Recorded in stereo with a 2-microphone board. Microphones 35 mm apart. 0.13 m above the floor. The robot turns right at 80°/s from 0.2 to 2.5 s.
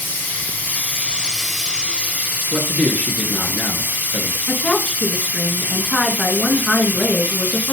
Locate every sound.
0.0 s running water: 75° left, 2.5 m; by 7.7 s 100° right, 2.5 m
2.5 s a man speaking: 40° left (ahead or behind), 1.8 m
4.5 s a woman speaking: 40° left (ahead or behind), 1.4 m